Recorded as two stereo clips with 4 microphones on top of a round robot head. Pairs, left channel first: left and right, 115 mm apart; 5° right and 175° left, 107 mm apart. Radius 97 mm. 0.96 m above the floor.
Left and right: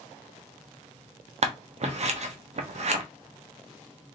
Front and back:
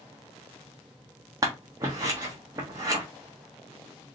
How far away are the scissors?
About 1.0 m.